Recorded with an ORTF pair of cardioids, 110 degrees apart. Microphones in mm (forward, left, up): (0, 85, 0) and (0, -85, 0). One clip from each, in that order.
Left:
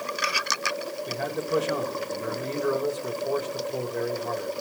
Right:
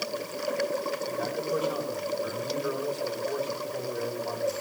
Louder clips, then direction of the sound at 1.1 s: Left 1 dB; 40° left.